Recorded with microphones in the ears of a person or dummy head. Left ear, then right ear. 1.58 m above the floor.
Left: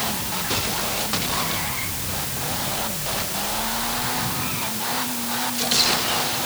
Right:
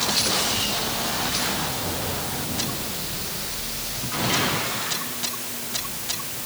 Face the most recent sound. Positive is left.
No sound to turn to.